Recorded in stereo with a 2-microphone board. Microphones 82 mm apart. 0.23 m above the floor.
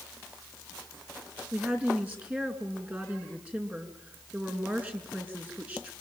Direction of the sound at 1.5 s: 20° right (ahead or behind).